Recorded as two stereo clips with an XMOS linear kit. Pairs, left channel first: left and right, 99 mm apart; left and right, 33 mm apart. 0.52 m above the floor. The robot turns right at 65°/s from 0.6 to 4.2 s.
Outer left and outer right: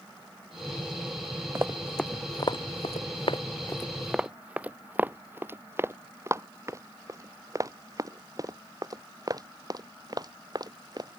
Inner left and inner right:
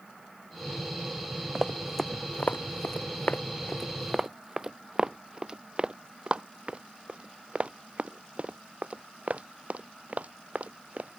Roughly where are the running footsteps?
Right.